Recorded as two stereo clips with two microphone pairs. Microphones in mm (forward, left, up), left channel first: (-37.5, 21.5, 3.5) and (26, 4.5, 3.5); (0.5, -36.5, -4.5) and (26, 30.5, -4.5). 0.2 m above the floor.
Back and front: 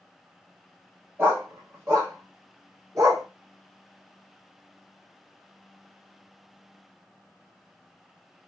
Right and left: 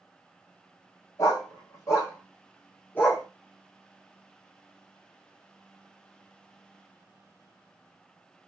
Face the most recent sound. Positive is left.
turn(degrees=-50)